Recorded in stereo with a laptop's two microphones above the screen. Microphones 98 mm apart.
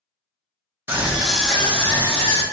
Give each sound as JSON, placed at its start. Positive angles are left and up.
{"t": 0.9, "sound": "a scream", "side_deg": -20, "distance_m": 0.6}